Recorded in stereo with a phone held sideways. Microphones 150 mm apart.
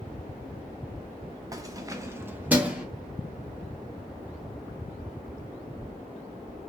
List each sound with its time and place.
1.5 s keys jangling: 20° right (ahead or behind), 0.5 m; by 2.9 s 5° right (ahead or behind), 0.7 m